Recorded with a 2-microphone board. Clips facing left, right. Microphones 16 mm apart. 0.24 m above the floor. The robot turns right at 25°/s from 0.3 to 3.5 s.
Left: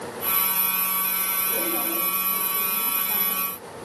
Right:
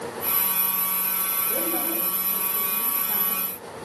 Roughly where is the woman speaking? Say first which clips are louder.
Right 1 dB; right.